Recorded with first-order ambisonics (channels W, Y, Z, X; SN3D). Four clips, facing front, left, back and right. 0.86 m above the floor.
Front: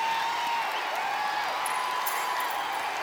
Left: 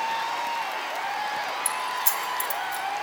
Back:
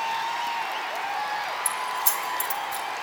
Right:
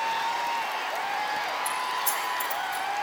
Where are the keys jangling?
135° left, 2.0 m; by 2.9 s 140° left, 3 m.